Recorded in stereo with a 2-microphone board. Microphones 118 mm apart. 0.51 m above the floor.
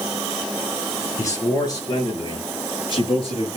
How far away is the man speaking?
About 6.5 m.